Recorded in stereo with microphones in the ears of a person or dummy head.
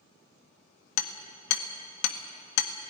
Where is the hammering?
70° left (ahead or behind), 1.1 m.